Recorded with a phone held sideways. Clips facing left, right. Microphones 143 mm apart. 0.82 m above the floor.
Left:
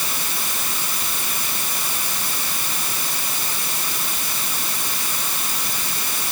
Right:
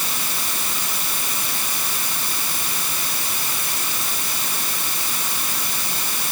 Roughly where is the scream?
I don't hear a scream.